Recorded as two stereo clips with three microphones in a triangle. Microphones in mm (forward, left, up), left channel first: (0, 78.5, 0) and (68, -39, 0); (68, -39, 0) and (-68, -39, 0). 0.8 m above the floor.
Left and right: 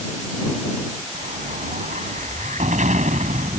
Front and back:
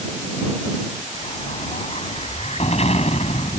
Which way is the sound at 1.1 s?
35° right.